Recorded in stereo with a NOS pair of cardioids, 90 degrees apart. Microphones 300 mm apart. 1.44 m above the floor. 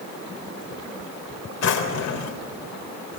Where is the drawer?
65° left, 4 m.